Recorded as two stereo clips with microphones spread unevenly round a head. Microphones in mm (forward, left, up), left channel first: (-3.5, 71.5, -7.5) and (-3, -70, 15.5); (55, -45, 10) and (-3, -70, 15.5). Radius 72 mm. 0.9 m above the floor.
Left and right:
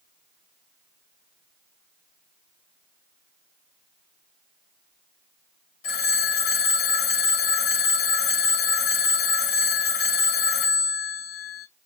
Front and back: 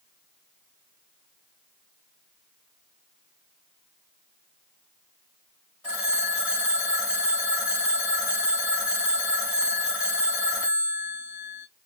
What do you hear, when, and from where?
5.8 s a phone ringing: 100° left, 3 m